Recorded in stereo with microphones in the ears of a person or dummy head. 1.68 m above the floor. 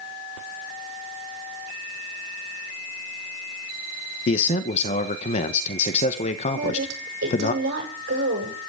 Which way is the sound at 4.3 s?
40° left (ahead or behind).